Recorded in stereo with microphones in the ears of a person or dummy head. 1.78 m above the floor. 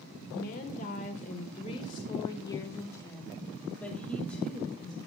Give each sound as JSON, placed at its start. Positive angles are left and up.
{"t": 0.3, "sound": "a woman speaking", "side_deg": 50, "distance_m": 1.7}